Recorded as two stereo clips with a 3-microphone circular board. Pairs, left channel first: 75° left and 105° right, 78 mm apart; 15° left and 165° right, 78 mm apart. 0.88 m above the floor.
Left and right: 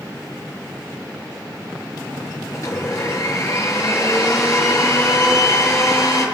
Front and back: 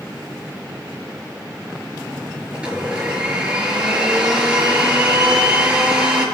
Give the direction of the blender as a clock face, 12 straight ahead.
8 o'clock.